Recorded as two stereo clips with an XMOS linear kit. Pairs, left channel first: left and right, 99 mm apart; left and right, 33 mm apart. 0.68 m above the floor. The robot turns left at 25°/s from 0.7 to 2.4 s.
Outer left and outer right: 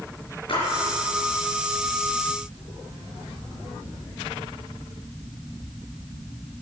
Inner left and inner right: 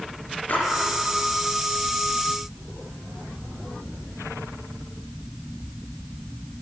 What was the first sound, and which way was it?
A splash, 60° left (ahead or behind).